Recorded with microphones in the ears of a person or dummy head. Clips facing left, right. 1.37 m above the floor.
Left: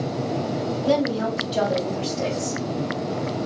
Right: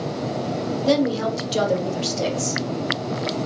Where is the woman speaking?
25° right (ahead or behind), 0.8 m; by 2.6 s 50° right (ahead or behind), 1.8 m.